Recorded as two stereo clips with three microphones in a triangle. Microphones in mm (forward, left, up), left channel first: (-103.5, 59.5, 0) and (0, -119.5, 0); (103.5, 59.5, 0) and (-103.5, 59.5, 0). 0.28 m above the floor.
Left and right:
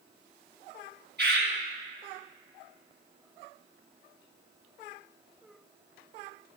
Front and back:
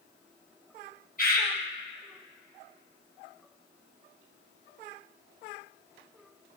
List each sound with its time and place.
1.2 s a bird: 35° right, 2.5 m